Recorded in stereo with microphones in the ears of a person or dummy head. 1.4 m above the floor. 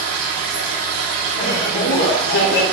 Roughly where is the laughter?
Left.